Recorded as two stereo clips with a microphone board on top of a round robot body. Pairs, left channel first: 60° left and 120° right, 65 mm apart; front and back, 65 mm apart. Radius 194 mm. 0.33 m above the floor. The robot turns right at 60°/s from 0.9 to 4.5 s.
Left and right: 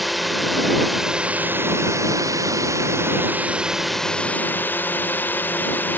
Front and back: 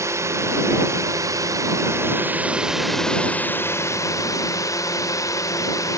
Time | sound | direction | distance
0.0 | a drone | 150° left | ?